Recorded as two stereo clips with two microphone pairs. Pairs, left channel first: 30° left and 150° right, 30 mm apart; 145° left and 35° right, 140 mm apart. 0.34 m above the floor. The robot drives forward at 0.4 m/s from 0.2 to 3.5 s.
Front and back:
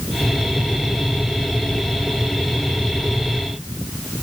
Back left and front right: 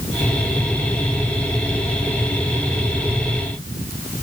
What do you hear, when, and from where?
Only background noise.